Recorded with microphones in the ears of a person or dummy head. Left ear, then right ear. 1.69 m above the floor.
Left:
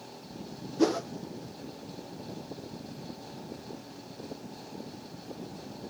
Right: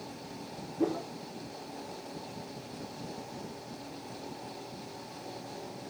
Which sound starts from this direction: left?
A whoosh, at 0.8 s.